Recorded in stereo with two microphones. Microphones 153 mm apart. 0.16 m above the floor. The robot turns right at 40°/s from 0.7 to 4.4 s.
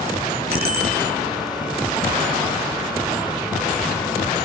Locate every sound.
0.5 s a bicycle bell: 80° right, 6 m; by 1.0 s 75° right (ahead or behind), 6 m